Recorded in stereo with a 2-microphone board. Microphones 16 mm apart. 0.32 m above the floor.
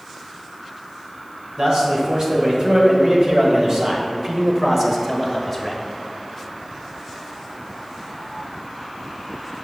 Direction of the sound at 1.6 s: 50° right (ahead or behind).